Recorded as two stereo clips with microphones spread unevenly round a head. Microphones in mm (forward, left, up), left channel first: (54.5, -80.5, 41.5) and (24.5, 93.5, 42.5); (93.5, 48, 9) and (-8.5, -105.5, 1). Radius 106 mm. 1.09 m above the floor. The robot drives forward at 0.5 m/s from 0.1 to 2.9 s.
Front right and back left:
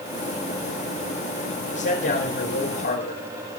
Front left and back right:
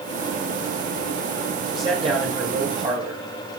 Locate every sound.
1.7 s a man speaking: 60° right, 5.5 m; by 3.2 s 70° right, 5.5 m